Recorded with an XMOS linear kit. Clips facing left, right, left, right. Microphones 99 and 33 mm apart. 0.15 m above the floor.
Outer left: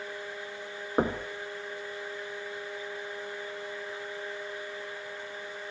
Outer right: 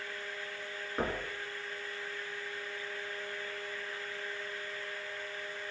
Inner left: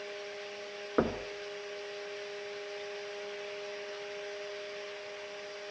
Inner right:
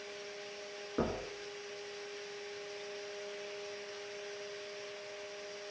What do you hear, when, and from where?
1.0 s knocking: 50° left (ahead or behind), 1.3 m